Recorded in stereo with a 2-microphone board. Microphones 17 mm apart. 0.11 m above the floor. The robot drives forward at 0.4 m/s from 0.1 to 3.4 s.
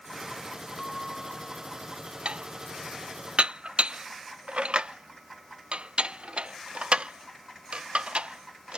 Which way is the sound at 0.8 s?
10° left (ahead or behind).